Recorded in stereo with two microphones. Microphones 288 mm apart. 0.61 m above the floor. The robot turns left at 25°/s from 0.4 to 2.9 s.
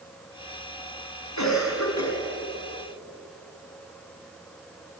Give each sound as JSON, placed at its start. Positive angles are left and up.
{"t": 1.4, "sound": "a cough", "side_deg": 80, "distance_m": 6.0}